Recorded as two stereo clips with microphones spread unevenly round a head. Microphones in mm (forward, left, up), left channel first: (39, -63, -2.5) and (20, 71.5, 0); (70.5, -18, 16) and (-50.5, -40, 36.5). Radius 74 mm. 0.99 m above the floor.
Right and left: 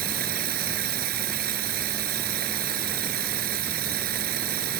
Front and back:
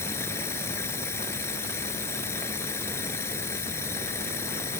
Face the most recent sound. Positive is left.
turn(degrees=85)